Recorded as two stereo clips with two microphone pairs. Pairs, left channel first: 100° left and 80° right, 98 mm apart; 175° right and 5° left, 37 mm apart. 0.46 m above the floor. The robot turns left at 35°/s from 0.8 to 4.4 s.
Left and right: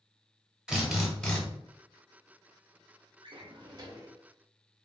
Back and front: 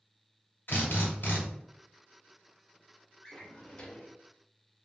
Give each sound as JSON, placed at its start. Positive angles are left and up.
{"t": 0.7, "sound": "a drill", "azimuth_deg": -160, "distance_m": 0.9}
{"t": 3.2, "sound": "a drawer", "azimuth_deg": -105, "distance_m": 0.6}